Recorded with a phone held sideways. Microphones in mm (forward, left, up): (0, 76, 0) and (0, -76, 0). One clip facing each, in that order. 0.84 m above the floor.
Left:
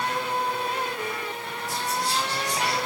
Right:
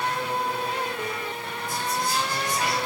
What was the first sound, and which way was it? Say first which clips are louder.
Whispering: even; 85° left.